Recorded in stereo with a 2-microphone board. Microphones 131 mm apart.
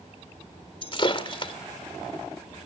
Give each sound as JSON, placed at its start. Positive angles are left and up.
{"t": 0.8, "sound": "breaking glass", "side_deg": 40, "distance_m": 1.9}